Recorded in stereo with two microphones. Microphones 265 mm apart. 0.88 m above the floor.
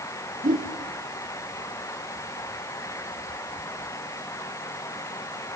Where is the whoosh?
30° right (ahead or behind), 2.5 m.